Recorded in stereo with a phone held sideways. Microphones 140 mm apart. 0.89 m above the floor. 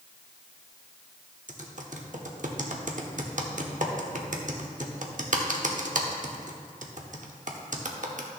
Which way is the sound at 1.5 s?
65° right (ahead or behind).